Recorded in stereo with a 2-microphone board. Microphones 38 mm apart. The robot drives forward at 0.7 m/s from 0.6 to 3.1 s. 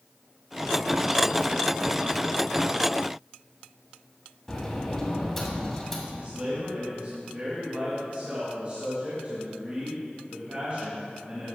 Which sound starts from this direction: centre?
A sliding door, at 4.5 s.